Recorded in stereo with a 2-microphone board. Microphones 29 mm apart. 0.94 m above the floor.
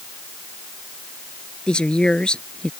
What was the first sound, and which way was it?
A woman speaking, 35° left (ahead or behind).